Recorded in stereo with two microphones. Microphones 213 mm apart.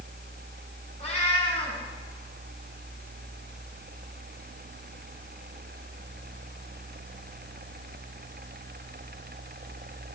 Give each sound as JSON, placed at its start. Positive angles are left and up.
{"t": 1.0, "sound": "a cat meowing", "side_deg": 30, "distance_m": 5.5}